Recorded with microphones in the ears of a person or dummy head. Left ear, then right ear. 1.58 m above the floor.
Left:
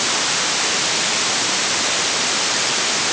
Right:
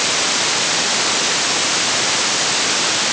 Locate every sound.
Only background noise.